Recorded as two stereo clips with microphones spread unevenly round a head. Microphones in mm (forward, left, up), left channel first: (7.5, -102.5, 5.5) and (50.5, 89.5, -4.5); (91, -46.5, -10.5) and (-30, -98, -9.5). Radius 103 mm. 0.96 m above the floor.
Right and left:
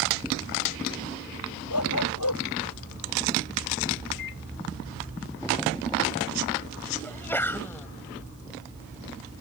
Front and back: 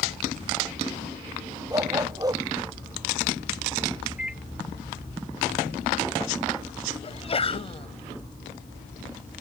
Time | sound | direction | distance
1.7 | a dog barking | 95° right | ?
4.2 | a microwave | 75° right | ?
7.0 | a sneeze | 25° right | ?